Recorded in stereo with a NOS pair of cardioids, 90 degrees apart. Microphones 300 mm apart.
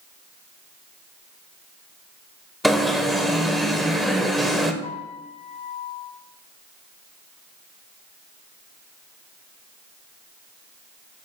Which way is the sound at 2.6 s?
Straight ahead.